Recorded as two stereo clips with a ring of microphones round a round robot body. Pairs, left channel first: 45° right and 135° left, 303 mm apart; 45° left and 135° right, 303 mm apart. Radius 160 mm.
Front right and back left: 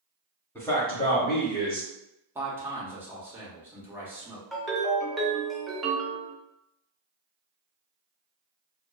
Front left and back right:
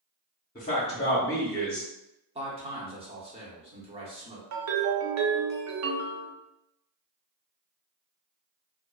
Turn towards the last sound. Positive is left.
turn(degrees=-135)